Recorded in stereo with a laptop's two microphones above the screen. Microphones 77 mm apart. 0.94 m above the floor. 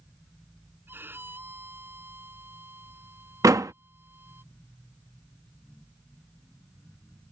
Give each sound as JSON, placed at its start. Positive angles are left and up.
{"t": 0.9, "sound": "a violin", "side_deg": -30}
{"t": 3.4, "sound": "a door slam", "side_deg": -45}